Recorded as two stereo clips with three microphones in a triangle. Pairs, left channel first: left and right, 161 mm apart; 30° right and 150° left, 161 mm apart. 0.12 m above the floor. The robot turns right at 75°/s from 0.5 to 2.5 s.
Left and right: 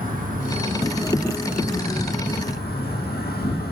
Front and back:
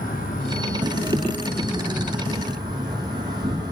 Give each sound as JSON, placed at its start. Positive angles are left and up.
{"t": 0.0, "sound": "an insect", "azimuth_deg": -60, "distance_m": 2.5}